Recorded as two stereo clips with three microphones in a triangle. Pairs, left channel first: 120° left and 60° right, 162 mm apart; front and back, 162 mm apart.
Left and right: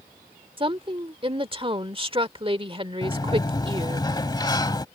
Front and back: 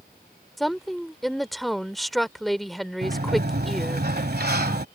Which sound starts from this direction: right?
A woman speaking, at 0.6 s.